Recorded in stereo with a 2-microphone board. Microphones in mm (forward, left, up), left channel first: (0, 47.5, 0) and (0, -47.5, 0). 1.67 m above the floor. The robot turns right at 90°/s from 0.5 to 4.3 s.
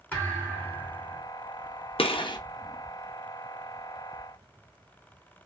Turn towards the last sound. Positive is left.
turn(degrees=-55)